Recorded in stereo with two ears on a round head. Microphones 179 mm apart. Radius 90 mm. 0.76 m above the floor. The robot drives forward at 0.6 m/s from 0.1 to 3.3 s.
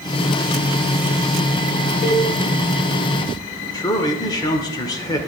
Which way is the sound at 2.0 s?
35° left (ahead or behind).